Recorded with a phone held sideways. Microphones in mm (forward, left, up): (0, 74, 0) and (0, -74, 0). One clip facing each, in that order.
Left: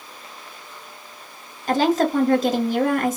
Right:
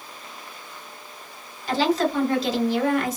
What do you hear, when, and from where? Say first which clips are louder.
1.7 s a woman speaking: left 3 dB; 50° left (ahead or behind), 1.3 m